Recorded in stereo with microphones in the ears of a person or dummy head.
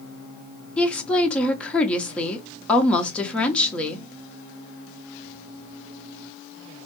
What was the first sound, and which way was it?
A woman speaking, 5° left (ahead or behind).